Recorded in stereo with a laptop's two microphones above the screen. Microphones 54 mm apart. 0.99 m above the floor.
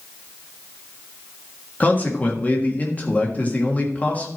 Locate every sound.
1.8 s a man speaking: 30° left (ahead or behind), 1.7 m